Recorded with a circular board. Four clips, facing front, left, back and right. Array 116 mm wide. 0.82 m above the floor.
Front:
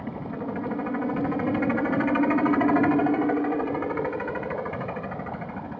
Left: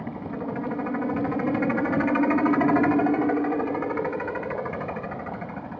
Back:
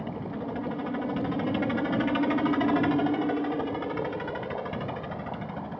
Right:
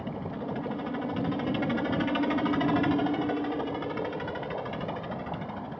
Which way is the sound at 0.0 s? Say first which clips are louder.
Left 3 dB, front 2 dB; 55° left.